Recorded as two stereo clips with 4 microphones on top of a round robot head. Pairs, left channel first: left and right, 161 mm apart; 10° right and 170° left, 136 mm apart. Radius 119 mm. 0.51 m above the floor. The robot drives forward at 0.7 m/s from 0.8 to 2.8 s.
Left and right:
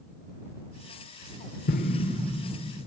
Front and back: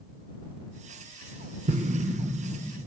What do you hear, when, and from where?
1.7 s an explosion: 120° left, 0.6 m; by 2.9 s 155° left, 1.2 m